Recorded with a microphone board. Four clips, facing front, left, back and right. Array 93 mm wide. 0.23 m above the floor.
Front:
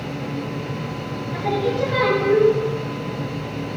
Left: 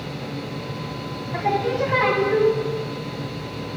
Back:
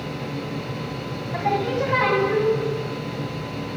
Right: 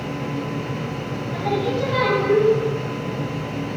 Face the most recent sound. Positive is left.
turn(degrees=135)